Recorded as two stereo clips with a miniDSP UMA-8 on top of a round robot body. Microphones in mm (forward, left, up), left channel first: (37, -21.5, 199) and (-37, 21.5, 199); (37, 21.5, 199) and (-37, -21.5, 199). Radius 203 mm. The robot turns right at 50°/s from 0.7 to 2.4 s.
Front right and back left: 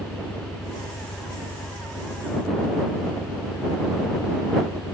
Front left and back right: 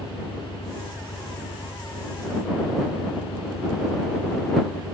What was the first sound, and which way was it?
An engine running, 65° right.